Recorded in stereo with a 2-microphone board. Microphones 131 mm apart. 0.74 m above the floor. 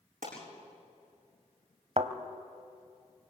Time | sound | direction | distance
0.2 | a pop | 85° right | 8.5 m
2.0 | a thud | 60° right (ahead or behind) | 1.2 m